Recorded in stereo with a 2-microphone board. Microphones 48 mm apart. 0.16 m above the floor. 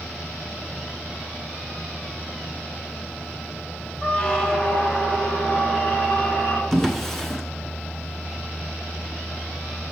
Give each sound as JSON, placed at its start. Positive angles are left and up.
{"t": 4.0, "sound": "a squeak", "side_deg": 20, "distance_m": 1.3}
{"t": 6.7, "sound": "a drawer", "side_deg": 5, "distance_m": 1.0}